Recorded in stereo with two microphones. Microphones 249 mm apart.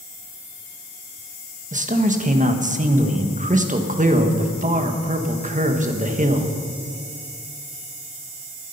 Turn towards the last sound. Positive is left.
turn(degrees=-30)  # may be behind; listen again after turning